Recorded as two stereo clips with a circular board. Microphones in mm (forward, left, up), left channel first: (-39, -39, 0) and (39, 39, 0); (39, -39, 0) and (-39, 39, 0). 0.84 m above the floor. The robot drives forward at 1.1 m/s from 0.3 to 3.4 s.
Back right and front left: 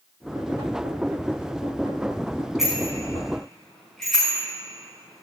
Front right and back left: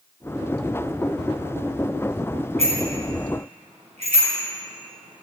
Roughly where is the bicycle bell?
Behind left.